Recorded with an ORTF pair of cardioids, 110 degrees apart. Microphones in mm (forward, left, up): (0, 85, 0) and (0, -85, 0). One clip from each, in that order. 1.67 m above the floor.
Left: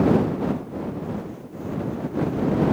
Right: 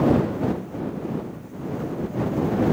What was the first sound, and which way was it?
Only background noise.